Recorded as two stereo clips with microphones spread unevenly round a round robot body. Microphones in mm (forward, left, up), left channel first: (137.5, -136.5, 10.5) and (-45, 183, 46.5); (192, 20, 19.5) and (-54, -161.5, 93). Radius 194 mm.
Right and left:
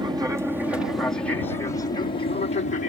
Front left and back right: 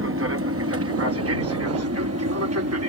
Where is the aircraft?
165° right; by 2.9 s 110° right.